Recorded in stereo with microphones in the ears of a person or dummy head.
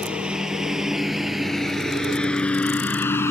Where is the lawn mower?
5° right (ahead or behind); by 3.3 s 20° left (ahead or behind).